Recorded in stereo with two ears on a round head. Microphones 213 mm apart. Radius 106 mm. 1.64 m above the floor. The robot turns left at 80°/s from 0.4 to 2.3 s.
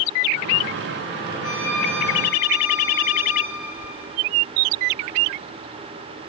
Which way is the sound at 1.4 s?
65° left.